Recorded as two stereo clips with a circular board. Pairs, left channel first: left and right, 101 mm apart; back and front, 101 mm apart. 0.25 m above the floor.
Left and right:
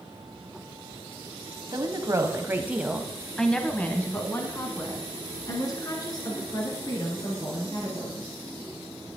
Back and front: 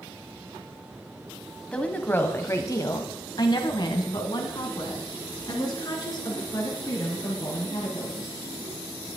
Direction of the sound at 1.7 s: 105° right.